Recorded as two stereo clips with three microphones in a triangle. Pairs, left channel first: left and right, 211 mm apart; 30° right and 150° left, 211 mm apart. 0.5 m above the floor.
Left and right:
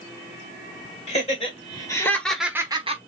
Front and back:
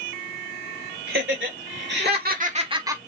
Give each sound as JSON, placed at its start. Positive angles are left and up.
{"t": 1.1, "sound": "laughter", "azimuth_deg": 145, "distance_m": 2.5}